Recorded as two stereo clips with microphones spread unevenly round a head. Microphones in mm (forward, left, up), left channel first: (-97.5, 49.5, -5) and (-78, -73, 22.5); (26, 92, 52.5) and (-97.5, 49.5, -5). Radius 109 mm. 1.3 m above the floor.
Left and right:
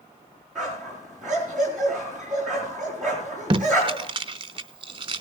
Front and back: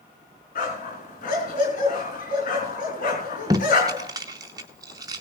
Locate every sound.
0.6 s a dog barking: 5° left, 4.5 m
3.5 s tape being pulled: 70° right, 0.8 m